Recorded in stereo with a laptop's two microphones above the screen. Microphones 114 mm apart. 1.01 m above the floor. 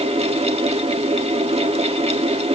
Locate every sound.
0.0 s a fan: 65° right (ahead or behind), 1.9 m